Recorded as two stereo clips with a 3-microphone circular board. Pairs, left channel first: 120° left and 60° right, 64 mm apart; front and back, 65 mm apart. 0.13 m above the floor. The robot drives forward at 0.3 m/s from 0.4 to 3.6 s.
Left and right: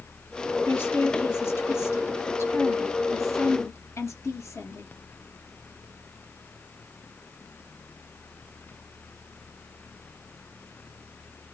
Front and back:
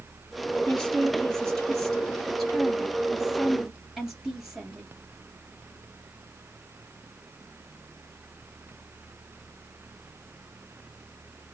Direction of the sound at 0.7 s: 75° left.